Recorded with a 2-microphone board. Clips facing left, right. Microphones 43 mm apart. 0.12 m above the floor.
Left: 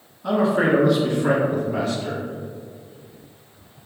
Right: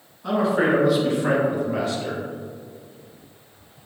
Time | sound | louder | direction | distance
0.2 | a man speaking | left 1 dB | 5° left (ahead or behind) | 1.3 m